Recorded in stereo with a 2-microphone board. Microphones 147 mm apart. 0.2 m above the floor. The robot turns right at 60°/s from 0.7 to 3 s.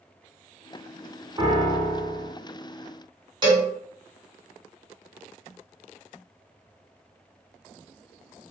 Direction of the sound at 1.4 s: 150° right.